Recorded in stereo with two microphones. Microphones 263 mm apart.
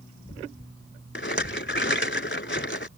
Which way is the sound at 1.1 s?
45° left (ahead or behind).